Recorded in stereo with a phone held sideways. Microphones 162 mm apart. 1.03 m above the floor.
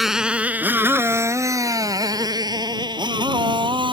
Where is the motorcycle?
Centre (ahead or behind); by 3.9 s 30° right (ahead or behind).